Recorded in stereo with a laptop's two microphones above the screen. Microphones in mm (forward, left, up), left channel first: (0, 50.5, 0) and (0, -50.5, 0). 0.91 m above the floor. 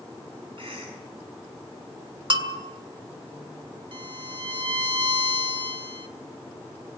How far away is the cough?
About 8.5 m.